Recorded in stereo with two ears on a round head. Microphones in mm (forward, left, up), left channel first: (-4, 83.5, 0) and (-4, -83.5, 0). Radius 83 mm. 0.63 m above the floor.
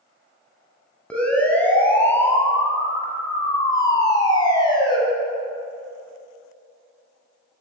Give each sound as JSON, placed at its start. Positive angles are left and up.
{"t": 1.1, "sound": "a siren", "side_deg": 5, "distance_m": 6.5}